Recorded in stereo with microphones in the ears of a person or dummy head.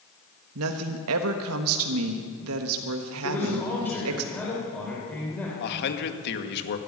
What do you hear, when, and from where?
0.6 s a woman speaking: 75° right (ahead or behind), 1.4 m
3.2 s a man speaking: 10° left (ahead or behind), 4 m
5.6 s a man speaking: 60° left (ahead or behind), 2 m